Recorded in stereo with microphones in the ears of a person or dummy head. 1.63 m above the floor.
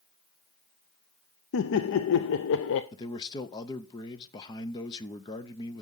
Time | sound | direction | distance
1.5 | laughter | 70° left (ahead or behind) | 0.6 m
2.9 | a man speaking | 25° left (ahead or behind) | 0.7 m